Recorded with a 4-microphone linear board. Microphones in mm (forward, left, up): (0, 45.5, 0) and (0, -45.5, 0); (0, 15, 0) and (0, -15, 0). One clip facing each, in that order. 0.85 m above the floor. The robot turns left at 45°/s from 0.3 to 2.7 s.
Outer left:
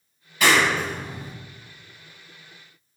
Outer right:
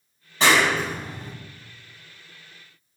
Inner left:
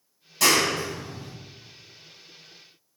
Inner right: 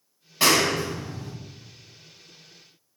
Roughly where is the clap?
Right.